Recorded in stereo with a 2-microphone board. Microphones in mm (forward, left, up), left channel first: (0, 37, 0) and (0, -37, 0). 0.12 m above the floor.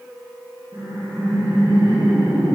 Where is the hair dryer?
I don't hear a hair dryer.